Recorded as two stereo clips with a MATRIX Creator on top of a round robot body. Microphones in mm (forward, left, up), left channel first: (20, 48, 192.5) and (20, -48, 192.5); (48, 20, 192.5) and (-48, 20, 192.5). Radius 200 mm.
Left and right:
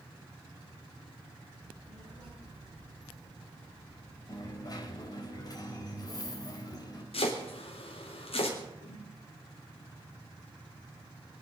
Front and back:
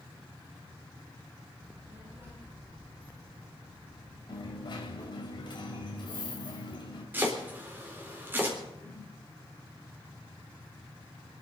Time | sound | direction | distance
1.6 | a child speaking | 115° right | 9 m
4.3 | a dropped coin | 40° left | 3.5 m
7.1 | chopping | 110° left | 4 m
8.8 | a whoosh | 75° left | 1.9 m